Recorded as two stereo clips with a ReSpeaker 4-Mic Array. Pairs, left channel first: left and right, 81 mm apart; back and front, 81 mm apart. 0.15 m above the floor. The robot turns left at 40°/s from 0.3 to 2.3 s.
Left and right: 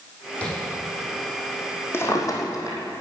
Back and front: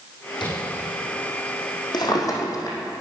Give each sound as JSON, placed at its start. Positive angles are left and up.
{"t": 0.4, "sound": "tapping", "azimuth_deg": 165, "distance_m": 6.5}
{"t": 1.9, "sound": "a drawer", "azimuth_deg": 150, "distance_m": 2.5}